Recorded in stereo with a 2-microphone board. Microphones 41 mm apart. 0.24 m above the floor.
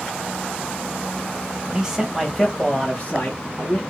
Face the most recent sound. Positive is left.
turn(degrees=40)  # may be behind; listen again after turning